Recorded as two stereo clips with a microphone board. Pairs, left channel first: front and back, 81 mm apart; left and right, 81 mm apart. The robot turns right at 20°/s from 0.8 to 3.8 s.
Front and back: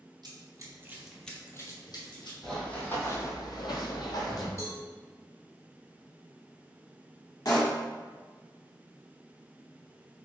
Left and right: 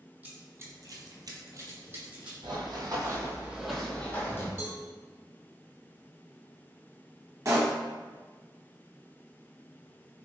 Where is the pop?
40° right, 1.0 m.